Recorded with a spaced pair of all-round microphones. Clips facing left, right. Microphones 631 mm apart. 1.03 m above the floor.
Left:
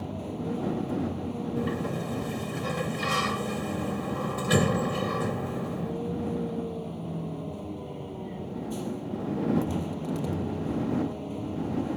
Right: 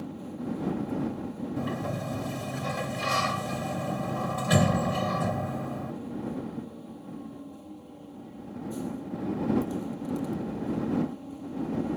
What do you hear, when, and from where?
0.0 s a vehicle: 85° left
1.6 s a sliding door: 10° right (ahead or behind)